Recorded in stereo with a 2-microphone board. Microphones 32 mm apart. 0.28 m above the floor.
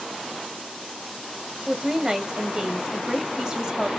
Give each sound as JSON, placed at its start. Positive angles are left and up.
{"t": 1.7, "sound": "a woman speaking", "side_deg": -25, "distance_m": 1.0}